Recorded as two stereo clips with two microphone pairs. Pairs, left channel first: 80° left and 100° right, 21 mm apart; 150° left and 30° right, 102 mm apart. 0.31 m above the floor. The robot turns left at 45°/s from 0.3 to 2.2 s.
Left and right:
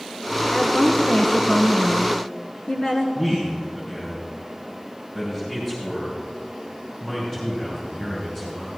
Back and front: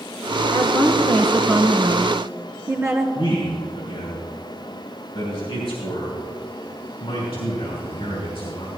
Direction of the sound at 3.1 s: 155° left.